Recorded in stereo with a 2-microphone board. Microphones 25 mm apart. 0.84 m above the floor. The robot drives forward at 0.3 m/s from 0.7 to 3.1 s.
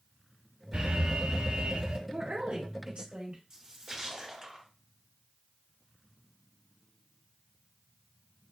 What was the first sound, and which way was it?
An alarm, 65° right (ahead or behind).